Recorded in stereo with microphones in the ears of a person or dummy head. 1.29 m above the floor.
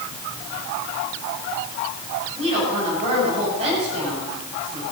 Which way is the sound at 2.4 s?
35° right (ahead or behind).